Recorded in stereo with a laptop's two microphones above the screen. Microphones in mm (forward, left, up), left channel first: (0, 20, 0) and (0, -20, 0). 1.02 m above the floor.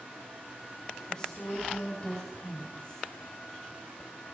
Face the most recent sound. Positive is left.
turn(degrees=20)  # may be behind; listen again after turning